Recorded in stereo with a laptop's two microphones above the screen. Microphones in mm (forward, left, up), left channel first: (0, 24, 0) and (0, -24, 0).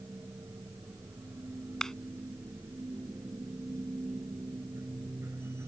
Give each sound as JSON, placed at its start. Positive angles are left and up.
{"t": 0.0, "sound": "a machine running", "side_deg": -65}
{"t": 1.8, "sound": "a clap", "side_deg": 15}